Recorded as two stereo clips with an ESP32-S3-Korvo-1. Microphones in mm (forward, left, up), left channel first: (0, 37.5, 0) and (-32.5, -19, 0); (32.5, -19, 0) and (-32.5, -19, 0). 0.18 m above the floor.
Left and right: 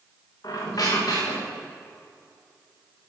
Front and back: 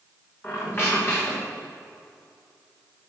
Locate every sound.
0.4 s a squeak: 55° left, 3 m